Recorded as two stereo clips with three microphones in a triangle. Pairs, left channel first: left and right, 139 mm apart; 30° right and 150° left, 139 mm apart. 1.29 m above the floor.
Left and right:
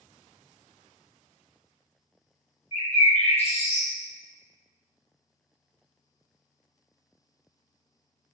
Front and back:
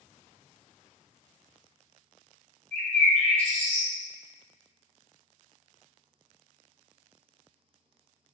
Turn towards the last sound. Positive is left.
turn(degrees=50)